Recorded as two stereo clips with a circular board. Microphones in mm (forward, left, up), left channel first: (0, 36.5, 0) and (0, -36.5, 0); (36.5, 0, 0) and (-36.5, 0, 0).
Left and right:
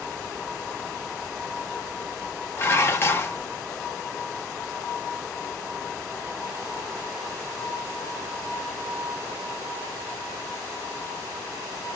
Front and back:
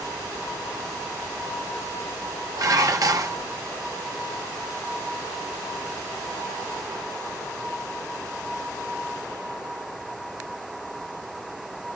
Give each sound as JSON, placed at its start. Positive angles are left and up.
{"t": 2.6, "sound": "dishes clattering", "azimuth_deg": 145, "distance_m": 0.8}